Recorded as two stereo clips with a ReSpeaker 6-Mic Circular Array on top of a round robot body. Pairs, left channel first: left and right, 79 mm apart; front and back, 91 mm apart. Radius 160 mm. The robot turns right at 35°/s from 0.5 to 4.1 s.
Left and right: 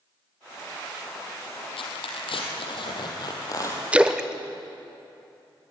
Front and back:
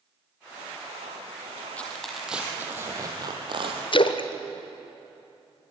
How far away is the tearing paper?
About 3 m.